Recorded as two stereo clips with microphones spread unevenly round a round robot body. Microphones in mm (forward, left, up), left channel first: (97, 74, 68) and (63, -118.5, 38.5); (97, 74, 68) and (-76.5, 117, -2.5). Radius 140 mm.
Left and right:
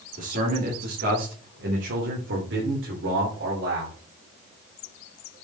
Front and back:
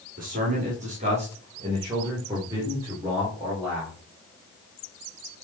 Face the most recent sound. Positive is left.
turn(degrees=-110)